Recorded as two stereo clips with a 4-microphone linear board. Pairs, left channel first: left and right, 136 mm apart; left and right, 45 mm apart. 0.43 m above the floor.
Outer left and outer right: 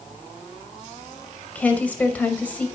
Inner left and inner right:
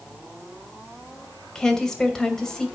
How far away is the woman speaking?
About 2 m.